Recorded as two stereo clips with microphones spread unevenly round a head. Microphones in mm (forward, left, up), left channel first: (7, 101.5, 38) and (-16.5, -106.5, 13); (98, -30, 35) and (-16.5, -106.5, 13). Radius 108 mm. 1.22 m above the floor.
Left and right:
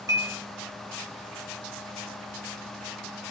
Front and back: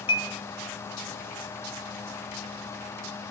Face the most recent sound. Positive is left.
turn(degrees=-20)